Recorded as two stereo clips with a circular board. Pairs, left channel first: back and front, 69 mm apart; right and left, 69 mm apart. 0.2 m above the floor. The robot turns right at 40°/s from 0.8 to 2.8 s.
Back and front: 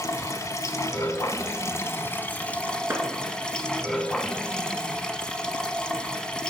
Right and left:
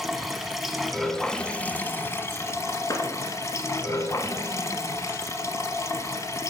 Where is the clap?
55° right, 2 m.